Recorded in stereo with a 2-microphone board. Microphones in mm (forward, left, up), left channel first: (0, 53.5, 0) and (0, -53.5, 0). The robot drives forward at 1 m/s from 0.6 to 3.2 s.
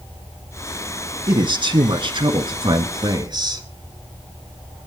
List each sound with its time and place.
1.3 s a man speaking: 45° right (ahead or behind), 2 m